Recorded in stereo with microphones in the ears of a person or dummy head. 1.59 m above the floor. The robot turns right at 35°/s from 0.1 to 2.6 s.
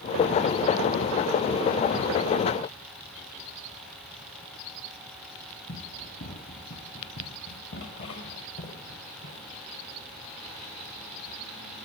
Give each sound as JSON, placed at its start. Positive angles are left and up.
{"t": 5.7, "sound": "running footsteps", "side_deg": 65, "distance_m": 8.0}